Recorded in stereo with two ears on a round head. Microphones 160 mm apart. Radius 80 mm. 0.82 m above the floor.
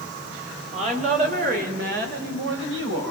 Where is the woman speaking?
40° right (ahead or behind), 4 m; by 3.1 s 75° right (ahead or behind), 5.5 m.